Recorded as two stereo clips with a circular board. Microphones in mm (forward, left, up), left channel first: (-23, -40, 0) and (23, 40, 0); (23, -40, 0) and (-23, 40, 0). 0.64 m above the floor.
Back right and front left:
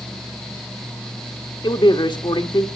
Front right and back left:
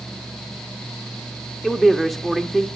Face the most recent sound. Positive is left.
turn(degrees=-150)